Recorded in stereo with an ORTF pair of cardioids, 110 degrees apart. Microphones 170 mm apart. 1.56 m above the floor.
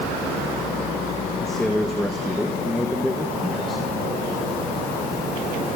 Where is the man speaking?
Straight ahead, 2.5 m.